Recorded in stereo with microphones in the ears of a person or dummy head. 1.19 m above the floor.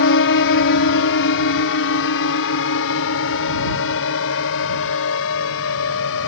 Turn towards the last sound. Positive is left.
turn(degrees=70)  # may be behind; listen again after turning